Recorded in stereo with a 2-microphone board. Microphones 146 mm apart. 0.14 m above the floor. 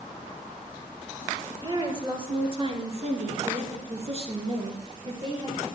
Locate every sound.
1.5 s a woman speaking: 25° right (ahead or behind), 2.5 m; by 5.8 s 30° right (ahead or behind), 3 m